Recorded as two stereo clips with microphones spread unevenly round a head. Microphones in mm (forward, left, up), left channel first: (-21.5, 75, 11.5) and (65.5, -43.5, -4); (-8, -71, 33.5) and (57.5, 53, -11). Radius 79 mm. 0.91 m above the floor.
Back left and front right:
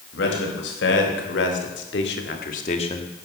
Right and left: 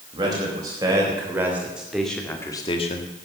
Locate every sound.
0.1 s a man speaking: 125° left, 4.5 m; by 3.1 s 160° right, 1.5 m